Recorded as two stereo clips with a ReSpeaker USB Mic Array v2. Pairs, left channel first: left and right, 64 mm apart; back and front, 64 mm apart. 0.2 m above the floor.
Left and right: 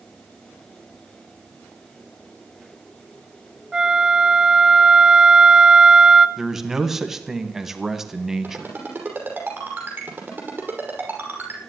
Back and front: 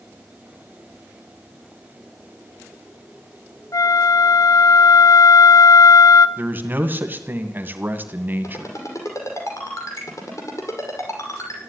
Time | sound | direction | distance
3.7 | a flute | 165° right | 0.6 m
6.4 | a man speaking | 10° right | 1.8 m
8.4 | a ringtone | 150° right | 5.5 m